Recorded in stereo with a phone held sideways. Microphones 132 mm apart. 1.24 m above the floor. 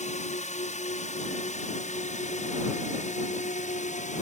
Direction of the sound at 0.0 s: 60° left (ahead or behind).